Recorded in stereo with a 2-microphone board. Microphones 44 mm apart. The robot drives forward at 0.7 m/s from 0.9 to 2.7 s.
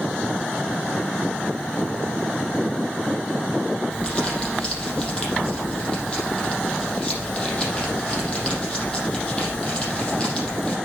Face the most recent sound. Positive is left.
turn(degrees=20)  # may be behind; listen again after turning